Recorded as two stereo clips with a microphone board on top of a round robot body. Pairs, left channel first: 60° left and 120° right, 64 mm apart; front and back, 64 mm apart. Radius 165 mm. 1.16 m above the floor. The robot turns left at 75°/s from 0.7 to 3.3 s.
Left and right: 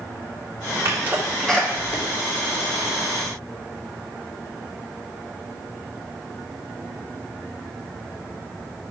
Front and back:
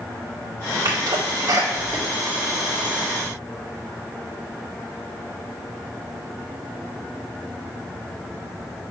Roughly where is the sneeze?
Behind.